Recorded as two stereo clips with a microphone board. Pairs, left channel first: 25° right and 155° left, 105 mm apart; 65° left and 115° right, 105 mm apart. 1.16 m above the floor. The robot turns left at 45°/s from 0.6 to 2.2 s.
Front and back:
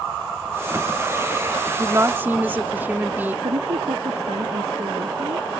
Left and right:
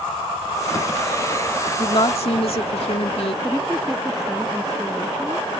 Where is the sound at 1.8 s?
105° left; by 3.3 s 85° left.